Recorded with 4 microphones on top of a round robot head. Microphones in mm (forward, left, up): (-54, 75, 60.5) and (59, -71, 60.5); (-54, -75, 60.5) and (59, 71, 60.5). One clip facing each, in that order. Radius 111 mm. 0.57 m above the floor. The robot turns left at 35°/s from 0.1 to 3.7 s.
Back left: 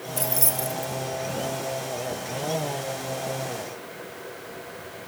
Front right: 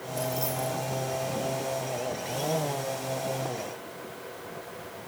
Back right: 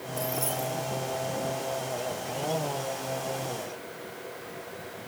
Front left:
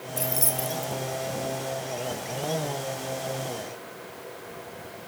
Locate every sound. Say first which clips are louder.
0.2 s keys jangling: even, even; 110° left, 3 m; by 0.9 s 85° left, 3 m